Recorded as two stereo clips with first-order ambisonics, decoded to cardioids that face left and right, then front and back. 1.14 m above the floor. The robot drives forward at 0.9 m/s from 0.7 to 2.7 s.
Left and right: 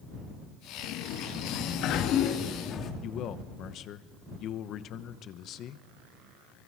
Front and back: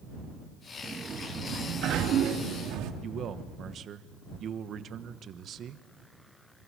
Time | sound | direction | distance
0.8 | a sliding door | 100° left | 1.4 m
3.0 | a man speaking | 130° left | 1.1 m